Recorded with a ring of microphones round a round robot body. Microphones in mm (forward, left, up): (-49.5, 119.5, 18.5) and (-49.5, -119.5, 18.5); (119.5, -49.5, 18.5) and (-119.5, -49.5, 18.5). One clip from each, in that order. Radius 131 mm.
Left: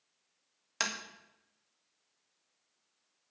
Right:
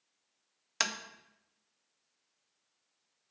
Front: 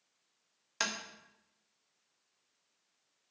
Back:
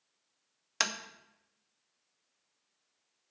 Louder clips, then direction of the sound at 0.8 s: Right 2 dB, back 3 dB; 145° right.